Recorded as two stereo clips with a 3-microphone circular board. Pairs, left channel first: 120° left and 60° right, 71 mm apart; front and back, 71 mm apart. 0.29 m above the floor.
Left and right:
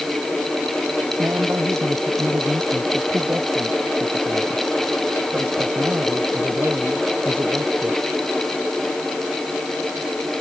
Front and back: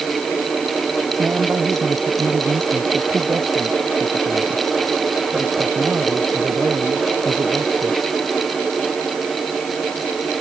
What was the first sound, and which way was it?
A man speaking, 120° right.